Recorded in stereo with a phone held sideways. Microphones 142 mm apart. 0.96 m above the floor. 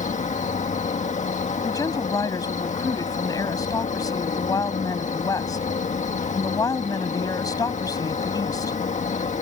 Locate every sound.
0.0 s an insect: 60° left (ahead or behind)
1.6 s a woman speaking: 25° left (ahead or behind)